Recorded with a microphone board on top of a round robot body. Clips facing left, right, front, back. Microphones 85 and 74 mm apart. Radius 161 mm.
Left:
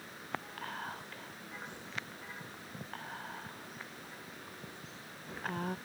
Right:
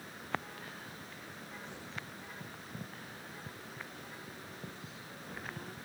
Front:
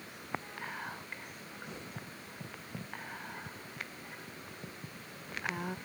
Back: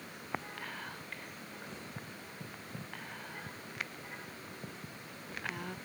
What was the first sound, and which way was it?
Whispering, 70° left.